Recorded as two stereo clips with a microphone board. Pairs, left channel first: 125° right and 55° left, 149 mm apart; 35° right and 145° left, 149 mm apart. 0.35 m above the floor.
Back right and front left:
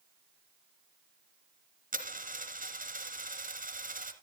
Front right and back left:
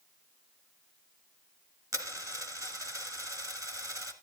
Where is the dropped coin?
80° left, 1.7 m.